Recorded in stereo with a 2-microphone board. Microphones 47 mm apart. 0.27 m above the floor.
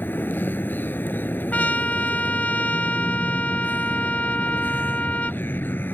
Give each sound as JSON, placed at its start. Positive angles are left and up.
{"t": 0.0, "sound": "a vehicle", "side_deg": 45}
{"t": 1.5, "sound": "a trumpet", "side_deg": 35}